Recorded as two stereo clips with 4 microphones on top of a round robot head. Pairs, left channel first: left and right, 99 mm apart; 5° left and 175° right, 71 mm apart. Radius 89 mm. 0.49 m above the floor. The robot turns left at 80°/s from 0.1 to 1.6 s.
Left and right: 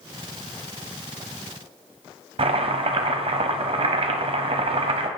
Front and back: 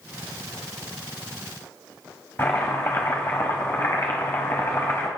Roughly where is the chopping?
Ahead right.